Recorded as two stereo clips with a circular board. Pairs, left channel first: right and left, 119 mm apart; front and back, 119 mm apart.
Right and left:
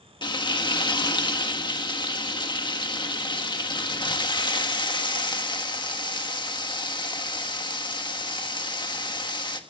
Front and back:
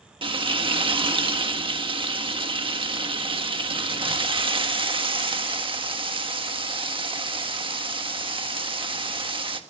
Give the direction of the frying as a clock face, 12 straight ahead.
5 o'clock.